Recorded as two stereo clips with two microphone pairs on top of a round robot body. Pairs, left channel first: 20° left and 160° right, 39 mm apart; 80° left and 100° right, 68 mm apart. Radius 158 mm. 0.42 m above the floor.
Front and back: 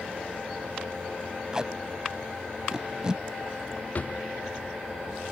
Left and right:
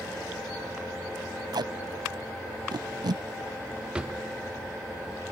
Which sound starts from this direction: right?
Tape being pulled, at 1.5 s.